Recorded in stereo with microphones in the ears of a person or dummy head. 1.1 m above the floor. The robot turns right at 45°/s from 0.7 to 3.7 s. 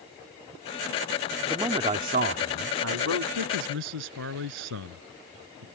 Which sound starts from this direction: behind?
A man speaking, at 1.5 s.